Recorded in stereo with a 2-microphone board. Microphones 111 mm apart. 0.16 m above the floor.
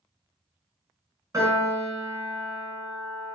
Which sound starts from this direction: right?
A piano, at 1.3 s.